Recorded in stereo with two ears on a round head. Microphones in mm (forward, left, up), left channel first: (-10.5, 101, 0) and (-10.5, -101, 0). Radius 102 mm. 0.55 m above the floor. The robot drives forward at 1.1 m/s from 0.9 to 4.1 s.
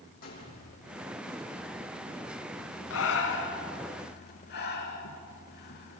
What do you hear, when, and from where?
0.2 s a gunshot: 40° left (ahead or behind), 8.5 m
2.9 s breathing: 70° left (ahead or behind), 2.5 m; by 6.0 s 50° left (ahead or behind), 3.5 m